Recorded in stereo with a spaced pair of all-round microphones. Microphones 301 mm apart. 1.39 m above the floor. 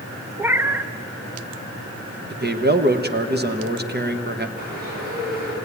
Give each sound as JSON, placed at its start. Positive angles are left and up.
{"t": 0.4, "sound": "a cat meowing", "side_deg": -5, "distance_m": 0.7}
{"t": 2.3, "sound": "a man speaking", "side_deg": -35, "distance_m": 1.4}
{"t": 4.6, "sound": "a bird", "side_deg": -35, "distance_m": 9.0}